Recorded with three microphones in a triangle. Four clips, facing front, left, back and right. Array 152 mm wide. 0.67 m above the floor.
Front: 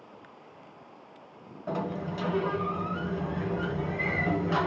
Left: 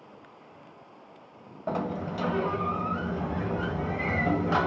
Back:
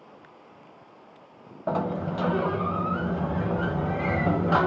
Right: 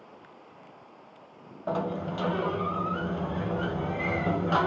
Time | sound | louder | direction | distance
1.7 | a sliding door | right 1 dB, back 5 dB | 170° left | 0.6 m